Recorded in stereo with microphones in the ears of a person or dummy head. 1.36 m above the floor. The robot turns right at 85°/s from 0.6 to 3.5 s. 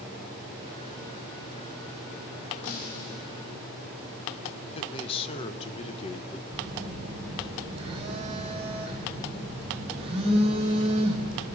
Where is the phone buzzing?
30° right (ahead or behind), 1.8 m.